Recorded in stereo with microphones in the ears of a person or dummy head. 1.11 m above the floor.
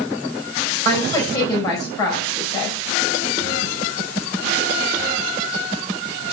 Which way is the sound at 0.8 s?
20° left (ahead or behind).